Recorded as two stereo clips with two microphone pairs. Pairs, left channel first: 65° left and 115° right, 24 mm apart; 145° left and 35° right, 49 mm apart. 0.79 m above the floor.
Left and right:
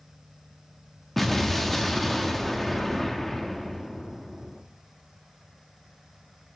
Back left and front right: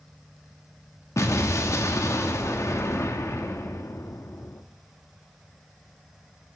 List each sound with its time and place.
1.2 s an explosion: 150° left, 0.7 m